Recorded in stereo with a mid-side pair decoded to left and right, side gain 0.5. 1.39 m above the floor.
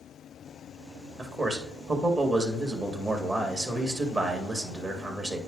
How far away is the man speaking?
About 1.6 m.